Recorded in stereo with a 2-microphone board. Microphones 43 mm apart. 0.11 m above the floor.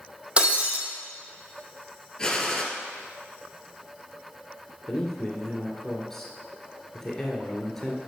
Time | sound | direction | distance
0.4 | breaking glass | 25° right (ahead or behind) | 1.5 m
2.2 | a gunshot | 10° left (ahead or behind) | 2 m
4.9 | a man speaking | 10° left (ahead or behind) | 1.7 m